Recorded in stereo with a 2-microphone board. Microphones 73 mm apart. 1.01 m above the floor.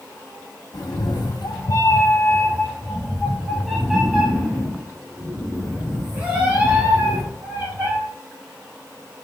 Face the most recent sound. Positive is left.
turn(degrees=-20)  # may be behind; listen again after turning